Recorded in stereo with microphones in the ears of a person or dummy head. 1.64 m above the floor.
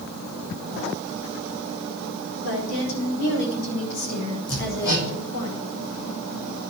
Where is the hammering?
75° left (ahead or behind), 5.5 m.